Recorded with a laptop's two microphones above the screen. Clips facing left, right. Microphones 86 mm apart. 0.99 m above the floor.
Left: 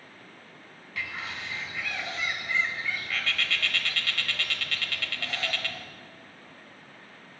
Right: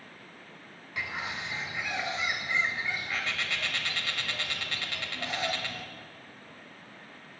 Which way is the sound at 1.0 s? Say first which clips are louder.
Right 1 dB; 20° right (ahead or behind).